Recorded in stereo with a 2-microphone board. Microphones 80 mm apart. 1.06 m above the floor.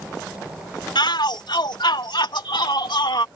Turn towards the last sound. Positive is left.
turn(degrees=60)  # may be behind; listen again after turning